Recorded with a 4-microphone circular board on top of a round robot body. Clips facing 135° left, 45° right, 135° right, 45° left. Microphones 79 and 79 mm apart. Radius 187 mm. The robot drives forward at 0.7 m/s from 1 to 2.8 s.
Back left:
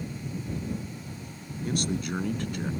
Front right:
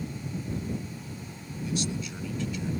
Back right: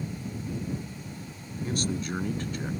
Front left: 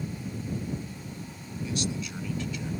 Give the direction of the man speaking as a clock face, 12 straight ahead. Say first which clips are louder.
Back left 3 dB, back right 2 dB; 6 o'clock.